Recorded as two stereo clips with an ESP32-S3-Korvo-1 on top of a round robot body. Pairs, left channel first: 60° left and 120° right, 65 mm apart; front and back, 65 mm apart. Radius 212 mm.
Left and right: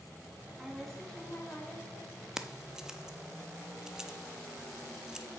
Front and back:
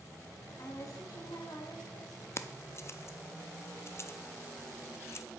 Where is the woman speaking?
40° right, 2 m; by 2.3 s 20° left, 3 m.